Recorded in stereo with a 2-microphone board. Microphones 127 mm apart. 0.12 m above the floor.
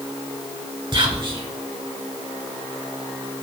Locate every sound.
0.9 s whispering: 30° right (ahead or behind), 1.8 m